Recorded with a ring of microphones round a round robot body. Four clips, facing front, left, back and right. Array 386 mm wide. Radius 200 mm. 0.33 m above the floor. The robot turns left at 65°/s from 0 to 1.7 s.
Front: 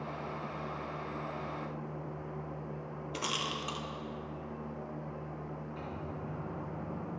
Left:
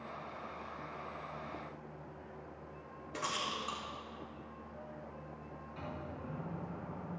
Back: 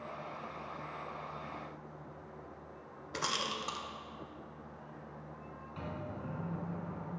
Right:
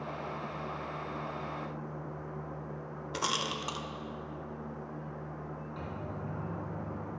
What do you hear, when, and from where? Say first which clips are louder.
3.1 s a rattle: right 4 dB, back 1 dB; 100° right, 0.6 m
5.8 s a microwave: right 2 dB, back 3 dB; 145° right, 3 m